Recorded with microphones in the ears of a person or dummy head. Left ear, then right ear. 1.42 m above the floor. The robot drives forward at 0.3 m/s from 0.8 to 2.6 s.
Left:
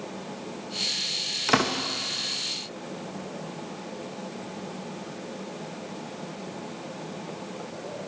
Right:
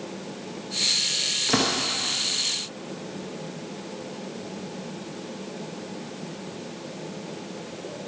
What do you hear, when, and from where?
1.5 s a door slam: 30° left (ahead or behind), 0.8 m